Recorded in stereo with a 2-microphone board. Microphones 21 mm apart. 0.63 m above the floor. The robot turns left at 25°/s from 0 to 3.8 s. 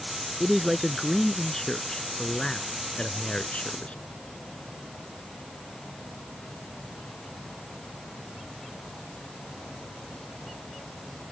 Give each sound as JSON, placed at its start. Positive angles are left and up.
{"t": 0.4, "sound": "a man speaking", "azimuth_deg": -165}